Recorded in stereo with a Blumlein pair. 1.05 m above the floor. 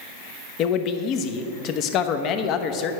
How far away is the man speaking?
About 0.8 m.